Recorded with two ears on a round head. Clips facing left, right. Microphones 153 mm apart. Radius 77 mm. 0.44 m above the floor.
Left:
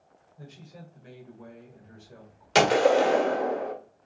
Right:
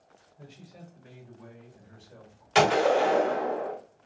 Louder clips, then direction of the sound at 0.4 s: Left 2 dB; 55° left (ahead or behind).